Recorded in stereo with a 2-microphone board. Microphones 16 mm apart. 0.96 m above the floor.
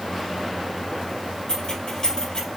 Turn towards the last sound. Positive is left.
turn(degrees=55)  # may be behind; listen again after turning